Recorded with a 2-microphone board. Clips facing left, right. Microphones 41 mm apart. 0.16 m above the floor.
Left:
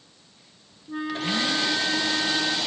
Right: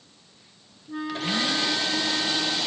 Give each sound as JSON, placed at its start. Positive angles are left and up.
{"t": 0.9, "sound": "a flute", "side_deg": 10, "distance_m": 2.5}